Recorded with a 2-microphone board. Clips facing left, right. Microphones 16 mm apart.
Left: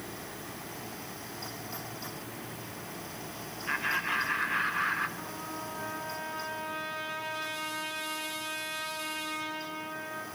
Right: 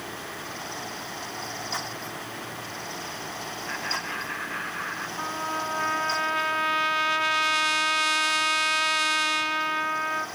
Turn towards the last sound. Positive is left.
turn(degrees=-50)  # may be behind; listen again after turning